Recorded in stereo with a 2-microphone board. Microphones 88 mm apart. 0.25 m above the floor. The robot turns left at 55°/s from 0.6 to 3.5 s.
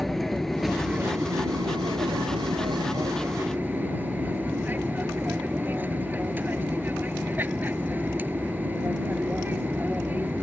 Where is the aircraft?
Straight ahead; by 10.4 s 160° right.